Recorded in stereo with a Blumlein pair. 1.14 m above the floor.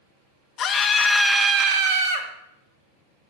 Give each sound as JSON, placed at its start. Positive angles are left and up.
{"t": 0.6, "sound": "a scream", "azimuth_deg": 30, "distance_m": 1.1}